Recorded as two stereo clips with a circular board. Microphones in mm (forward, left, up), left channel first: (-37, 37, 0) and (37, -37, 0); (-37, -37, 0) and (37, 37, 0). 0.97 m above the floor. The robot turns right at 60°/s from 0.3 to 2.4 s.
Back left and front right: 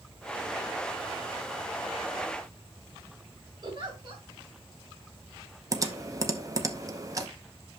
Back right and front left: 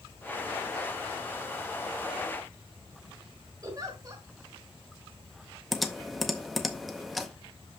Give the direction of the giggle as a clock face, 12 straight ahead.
12 o'clock.